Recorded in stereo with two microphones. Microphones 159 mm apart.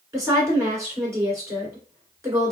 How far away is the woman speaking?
About 1.7 m.